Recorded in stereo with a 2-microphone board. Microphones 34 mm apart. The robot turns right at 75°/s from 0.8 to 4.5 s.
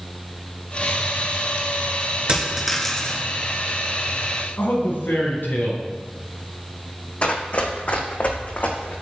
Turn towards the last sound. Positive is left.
turn(degrees=55)  # may be behind; listen again after turning